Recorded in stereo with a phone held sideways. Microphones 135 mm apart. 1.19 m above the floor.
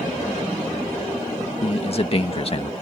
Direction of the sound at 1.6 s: 45° left (ahead or behind).